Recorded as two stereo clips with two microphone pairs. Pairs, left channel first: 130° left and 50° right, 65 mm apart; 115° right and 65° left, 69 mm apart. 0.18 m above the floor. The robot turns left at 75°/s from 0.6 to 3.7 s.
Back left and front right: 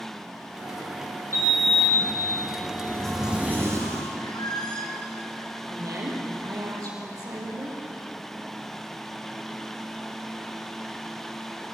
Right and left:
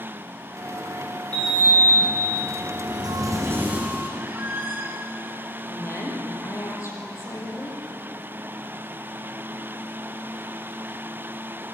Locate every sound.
1.3 s a sliding door: 175° left, 4 m; by 4.1 s 5° right, 4 m
4.2 s a squeak: 120° left, 3 m
5.7 s a woman speaking: 75° right, 6 m